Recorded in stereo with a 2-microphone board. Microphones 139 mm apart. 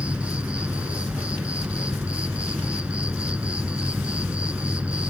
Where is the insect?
10° right (ahead or behind), 1.2 m.